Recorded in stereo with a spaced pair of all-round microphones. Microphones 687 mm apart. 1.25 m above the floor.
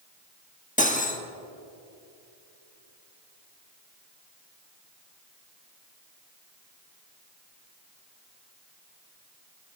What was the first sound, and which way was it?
Cutlery clinking, 10° left (ahead or behind).